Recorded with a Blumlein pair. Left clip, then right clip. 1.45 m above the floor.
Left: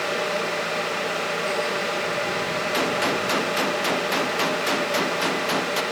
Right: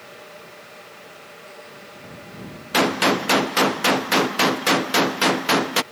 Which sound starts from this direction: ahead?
A gunshot, at 2.7 s.